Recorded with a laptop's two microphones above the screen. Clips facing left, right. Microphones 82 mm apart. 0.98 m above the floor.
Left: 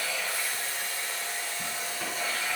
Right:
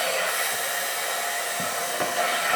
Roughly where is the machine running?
Right.